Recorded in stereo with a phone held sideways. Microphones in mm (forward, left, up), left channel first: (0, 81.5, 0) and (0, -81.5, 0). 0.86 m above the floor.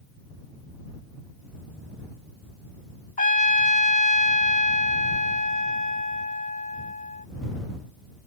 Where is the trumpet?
55° left (ahead or behind).